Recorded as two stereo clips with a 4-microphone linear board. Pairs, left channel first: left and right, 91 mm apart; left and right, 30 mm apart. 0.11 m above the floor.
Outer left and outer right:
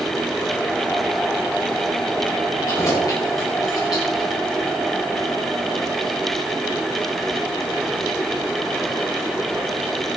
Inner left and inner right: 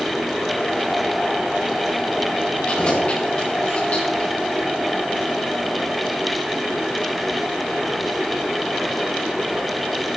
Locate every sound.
2.7 s keys jangling: 40° left (ahead or behind), 7.5 m; by 4.3 s 50° left (ahead or behind), 9 m